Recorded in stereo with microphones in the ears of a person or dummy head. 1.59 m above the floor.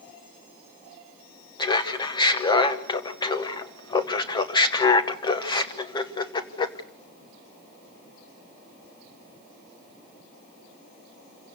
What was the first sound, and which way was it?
Laughter, 25° left (ahead or behind).